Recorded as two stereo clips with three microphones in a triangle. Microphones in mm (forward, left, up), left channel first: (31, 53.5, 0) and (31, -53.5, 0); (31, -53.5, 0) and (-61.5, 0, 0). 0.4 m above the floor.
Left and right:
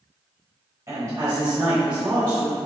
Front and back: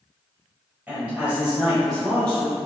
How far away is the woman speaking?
About 1.6 m.